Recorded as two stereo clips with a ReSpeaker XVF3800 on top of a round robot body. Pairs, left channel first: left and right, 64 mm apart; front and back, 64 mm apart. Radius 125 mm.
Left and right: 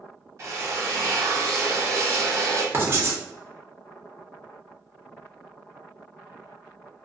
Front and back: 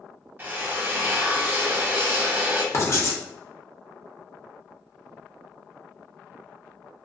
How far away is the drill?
About 0.9 m.